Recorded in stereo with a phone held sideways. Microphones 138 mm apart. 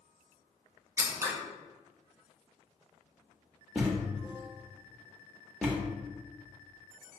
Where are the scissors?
20° right (ahead or behind), 0.8 m.